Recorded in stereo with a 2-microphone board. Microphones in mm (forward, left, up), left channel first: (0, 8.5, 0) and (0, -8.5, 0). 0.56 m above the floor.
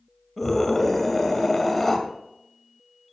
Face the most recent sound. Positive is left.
turn(degrees=15)  # may be behind; listen again after turning